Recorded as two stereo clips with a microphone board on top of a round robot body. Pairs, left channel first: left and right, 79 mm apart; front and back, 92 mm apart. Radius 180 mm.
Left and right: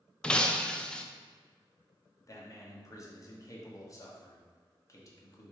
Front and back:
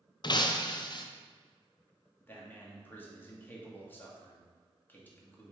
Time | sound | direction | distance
0.2 | breaking glass | 15° left | 0.6 m
2.2 | a man speaking | 65° left | 1.3 m